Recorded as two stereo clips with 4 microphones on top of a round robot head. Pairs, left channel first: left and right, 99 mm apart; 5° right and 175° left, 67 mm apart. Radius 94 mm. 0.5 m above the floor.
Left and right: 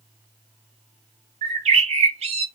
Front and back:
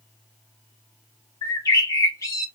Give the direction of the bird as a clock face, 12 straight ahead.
2 o'clock.